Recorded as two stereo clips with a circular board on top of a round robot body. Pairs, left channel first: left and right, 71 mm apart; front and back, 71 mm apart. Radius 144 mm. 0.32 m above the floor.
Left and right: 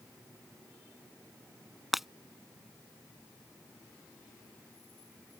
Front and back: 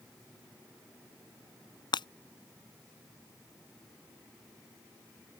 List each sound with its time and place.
1.9 s breaking glass: straight ahead